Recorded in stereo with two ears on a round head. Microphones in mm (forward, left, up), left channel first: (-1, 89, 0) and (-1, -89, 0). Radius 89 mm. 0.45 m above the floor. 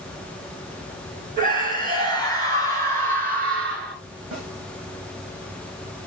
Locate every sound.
1.4 s a scream: 45° right (ahead or behind), 7 m; by 4.0 s 50° right (ahead or behind), 5.5 m
4.3 s a snare drum: 75° right (ahead or behind), 6.5 m